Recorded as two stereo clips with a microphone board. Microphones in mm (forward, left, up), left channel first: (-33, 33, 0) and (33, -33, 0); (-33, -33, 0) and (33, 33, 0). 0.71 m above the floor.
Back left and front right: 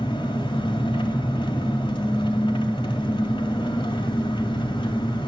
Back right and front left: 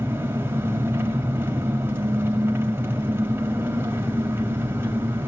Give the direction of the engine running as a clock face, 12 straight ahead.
8 o'clock.